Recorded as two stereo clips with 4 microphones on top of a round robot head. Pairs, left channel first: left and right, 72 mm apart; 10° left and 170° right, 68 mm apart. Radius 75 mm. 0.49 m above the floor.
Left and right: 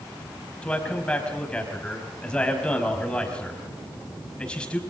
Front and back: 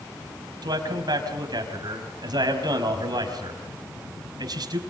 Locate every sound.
0.6 s a man speaking: 170° left, 4.5 m